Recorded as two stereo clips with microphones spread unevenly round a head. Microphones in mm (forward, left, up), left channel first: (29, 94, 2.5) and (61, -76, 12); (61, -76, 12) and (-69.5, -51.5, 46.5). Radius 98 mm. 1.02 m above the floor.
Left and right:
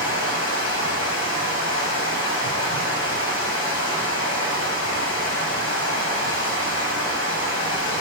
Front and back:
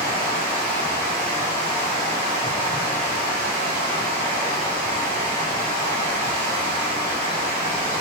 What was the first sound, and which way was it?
Running water, 110° left.